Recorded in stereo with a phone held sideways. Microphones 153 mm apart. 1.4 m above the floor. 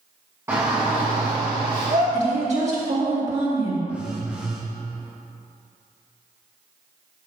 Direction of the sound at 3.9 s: 10° right (ahead or behind).